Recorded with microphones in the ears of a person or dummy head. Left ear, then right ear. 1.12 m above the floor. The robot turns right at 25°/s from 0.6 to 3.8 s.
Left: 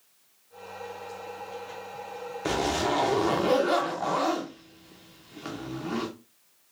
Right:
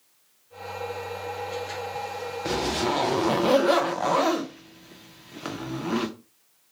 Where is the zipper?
15° left (ahead or behind), 0.5 m; by 6.1 s 20° right (ahead or behind), 0.5 m.